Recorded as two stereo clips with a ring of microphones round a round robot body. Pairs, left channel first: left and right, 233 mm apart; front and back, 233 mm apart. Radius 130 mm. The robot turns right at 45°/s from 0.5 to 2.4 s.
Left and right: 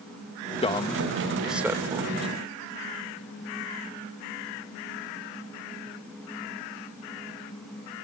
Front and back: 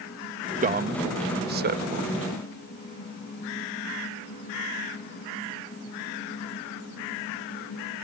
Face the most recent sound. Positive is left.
turn(degrees=-135)